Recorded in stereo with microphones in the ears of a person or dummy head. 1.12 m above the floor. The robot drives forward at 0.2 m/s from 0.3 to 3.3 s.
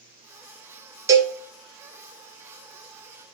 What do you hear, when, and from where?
1.1 s a cowbell: 20° right (ahead or behind), 0.8 m; by 1.3 s 25° right (ahead or behind), 0.7 m